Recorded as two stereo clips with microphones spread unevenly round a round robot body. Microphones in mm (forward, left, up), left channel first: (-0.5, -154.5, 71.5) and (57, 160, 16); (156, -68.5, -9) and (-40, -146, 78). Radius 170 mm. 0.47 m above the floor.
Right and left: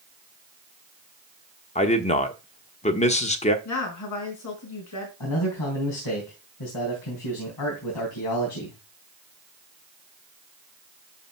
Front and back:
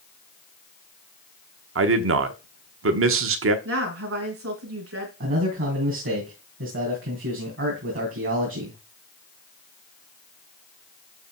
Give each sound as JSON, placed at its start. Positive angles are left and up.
{"t": 1.8, "sound": "a man speaking", "azimuth_deg": -170, "distance_m": 1.2}
{"t": 3.6, "sound": "a woman speaking", "azimuth_deg": -140, "distance_m": 5.0}
{"t": 5.2, "sound": "a man speaking", "azimuth_deg": -130, "distance_m": 3.5}